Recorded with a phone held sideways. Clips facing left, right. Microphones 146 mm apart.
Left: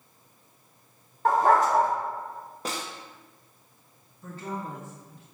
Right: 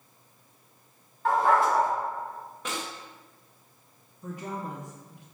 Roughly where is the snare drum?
Left.